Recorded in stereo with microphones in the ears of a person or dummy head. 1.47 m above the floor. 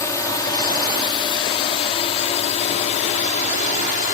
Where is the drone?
15° left (ahead or behind); by 4.1 s 40° left (ahead or behind).